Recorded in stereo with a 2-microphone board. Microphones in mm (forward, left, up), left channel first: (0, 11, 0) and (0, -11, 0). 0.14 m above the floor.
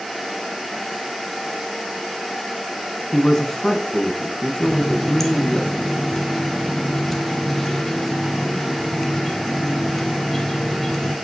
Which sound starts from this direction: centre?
A running tap, at 4.6 s.